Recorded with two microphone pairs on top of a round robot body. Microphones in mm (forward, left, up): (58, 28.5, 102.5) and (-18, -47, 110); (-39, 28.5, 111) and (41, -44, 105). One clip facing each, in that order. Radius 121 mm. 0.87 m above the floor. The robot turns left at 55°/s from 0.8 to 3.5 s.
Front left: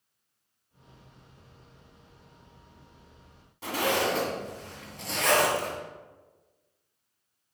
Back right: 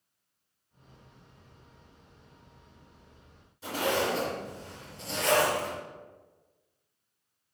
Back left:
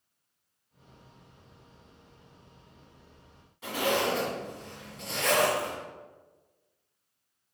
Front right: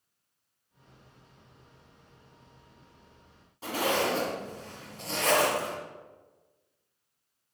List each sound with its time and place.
3.6 s a zipper: 15° left, 2.5 m